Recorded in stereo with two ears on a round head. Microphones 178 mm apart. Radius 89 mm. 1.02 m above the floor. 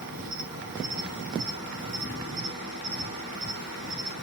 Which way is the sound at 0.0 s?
50° right (ahead or behind).